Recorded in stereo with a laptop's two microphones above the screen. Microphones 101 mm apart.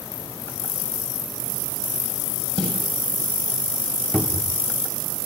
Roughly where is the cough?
No cough in this recording.